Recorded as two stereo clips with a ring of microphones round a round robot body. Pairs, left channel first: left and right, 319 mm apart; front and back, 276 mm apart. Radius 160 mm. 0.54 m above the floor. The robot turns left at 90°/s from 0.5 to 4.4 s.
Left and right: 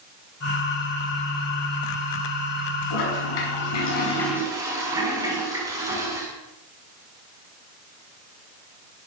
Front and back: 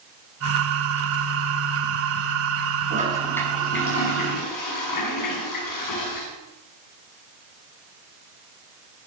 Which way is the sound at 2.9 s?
125° left.